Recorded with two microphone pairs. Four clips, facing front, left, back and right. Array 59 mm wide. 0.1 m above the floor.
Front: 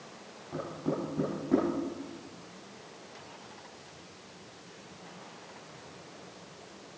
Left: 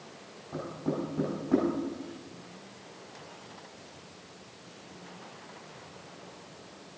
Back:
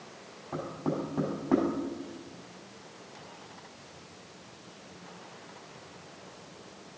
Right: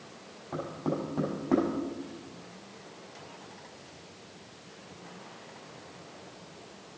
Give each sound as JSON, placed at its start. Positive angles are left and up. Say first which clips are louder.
{"t": 0.5, "sound": "knocking", "louder": "right 1 dB, back 1 dB", "azimuth_deg": -140, "distance_m": 5.0}